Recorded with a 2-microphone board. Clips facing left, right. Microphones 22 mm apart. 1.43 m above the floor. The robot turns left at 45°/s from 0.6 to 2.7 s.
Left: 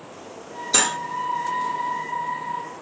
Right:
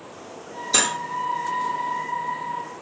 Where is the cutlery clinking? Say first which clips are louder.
Even; 5° left (ahead or behind), 1.0 m; by 1.0 s 15° left (ahead or behind), 1.0 m.